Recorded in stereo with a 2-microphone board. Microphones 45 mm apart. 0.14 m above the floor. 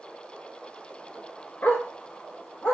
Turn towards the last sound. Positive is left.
turn(degrees=60)  # may be behind; listen again after turning